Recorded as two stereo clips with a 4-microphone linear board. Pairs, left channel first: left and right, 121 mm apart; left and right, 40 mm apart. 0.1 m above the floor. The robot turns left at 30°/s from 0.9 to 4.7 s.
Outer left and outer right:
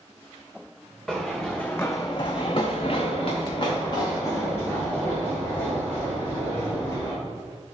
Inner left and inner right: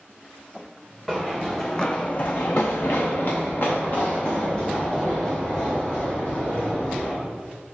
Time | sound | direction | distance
1.1 | running footsteps | centre (ahead or behind) | 0.7 m